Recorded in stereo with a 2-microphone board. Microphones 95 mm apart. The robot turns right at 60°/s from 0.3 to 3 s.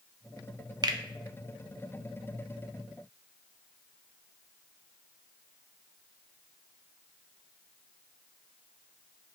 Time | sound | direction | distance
0.8 | a finger snap | 45° right (ahead or behind) | 0.6 m